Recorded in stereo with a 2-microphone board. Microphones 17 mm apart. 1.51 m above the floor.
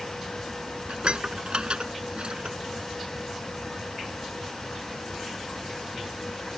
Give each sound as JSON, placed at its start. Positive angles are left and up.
{"t": 0.9, "sound": "dishes clattering", "side_deg": -65}